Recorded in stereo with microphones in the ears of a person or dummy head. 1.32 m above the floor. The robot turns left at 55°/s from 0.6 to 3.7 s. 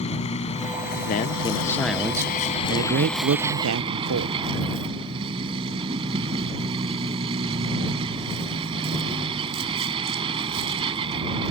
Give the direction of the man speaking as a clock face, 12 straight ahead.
10 o'clock.